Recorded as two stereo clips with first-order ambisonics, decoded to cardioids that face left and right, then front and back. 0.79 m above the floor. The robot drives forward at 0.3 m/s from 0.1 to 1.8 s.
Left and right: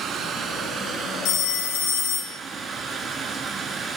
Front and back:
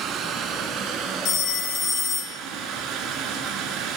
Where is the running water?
140° right, 1.0 m; by 4.0 s 155° right, 1.4 m.